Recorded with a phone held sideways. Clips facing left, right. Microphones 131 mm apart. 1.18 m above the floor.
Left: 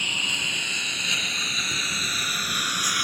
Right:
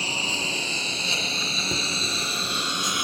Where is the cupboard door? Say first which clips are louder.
Right 5 dB; 55° right (ahead or behind).